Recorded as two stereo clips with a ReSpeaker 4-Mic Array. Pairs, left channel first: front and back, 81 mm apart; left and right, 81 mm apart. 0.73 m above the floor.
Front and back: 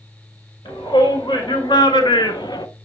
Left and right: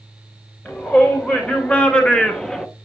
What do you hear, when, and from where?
0.7 s a shout: 20° left, 2.5 m; by 2.7 s 5° left, 0.8 m